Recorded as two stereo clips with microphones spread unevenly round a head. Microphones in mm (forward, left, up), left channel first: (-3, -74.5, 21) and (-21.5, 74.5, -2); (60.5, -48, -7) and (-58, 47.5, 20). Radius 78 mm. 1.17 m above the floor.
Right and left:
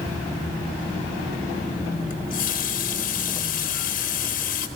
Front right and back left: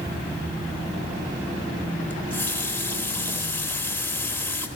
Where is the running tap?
120° right, 2.5 m.